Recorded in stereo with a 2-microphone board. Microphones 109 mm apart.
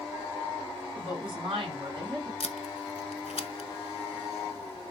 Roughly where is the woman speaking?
Right.